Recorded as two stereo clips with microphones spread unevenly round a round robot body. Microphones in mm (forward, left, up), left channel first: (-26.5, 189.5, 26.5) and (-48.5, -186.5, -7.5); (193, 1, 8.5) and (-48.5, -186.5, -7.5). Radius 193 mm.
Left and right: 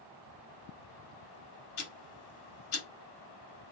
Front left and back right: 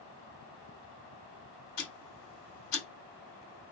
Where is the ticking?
50° left, 1.6 m.